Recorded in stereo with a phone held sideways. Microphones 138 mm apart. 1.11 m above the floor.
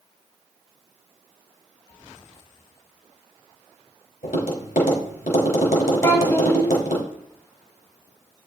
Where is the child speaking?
20° left (ahead or behind), 5 m.